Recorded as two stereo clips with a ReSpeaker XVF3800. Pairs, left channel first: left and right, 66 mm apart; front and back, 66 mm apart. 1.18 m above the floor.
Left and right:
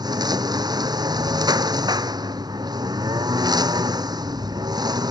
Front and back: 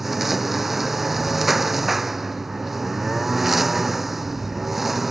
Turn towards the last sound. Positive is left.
turn(degrees=-95)